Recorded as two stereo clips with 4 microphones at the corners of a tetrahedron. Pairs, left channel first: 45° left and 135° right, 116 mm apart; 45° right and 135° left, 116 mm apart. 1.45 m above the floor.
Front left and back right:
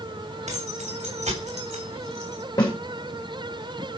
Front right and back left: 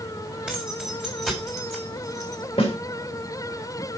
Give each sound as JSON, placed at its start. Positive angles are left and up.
{"t": 0.5, "sound": "keys jangling", "azimuth_deg": -145, "distance_m": 4.0}
{"t": 2.6, "sound": "a snare drum", "azimuth_deg": -10, "distance_m": 3.0}